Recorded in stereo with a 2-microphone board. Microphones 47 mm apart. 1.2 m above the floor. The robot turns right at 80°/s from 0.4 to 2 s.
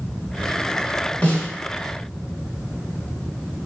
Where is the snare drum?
30° left (ahead or behind), 1.2 m; by 1.5 s 15° left (ahead or behind), 1.2 m.